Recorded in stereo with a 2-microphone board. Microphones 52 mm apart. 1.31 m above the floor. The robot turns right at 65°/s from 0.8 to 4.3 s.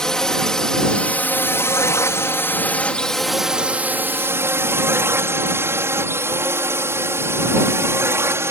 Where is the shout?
No shout in this recording.